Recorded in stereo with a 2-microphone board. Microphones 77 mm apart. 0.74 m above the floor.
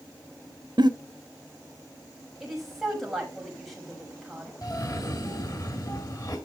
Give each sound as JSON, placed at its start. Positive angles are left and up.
{"t": 0.8, "sound": "a giggle", "side_deg": -70, "distance_m": 1.1}
{"t": 2.4, "sound": "a woman speaking", "side_deg": 0, "distance_m": 5.0}
{"t": 4.6, "sound": "a cough", "side_deg": 50, "distance_m": 1.6}